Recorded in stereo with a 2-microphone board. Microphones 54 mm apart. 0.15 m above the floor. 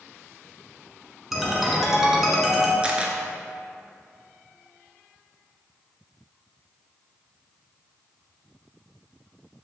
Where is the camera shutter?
20° right (ahead or behind), 0.8 m.